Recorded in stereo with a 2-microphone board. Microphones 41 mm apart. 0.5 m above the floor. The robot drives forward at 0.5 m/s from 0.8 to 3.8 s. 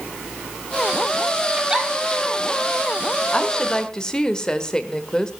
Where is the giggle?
20° right (ahead or behind), 2 m.